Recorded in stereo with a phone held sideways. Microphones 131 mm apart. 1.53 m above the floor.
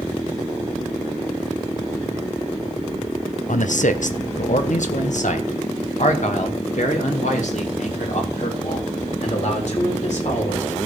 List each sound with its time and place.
3.5 s a man speaking: 75° left (ahead or behind), 1.0 m; by 10.8 s 65° left (ahead or behind), 4.5 m